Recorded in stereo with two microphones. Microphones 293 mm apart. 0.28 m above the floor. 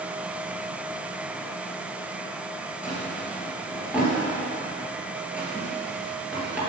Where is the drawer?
5° right (ahead or behind), 3.5 m.